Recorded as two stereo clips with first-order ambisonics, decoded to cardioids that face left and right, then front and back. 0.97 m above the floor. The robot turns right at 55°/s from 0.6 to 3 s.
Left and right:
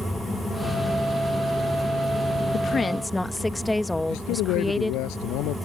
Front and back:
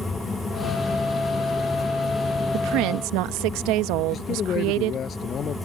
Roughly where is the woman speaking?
Behind left.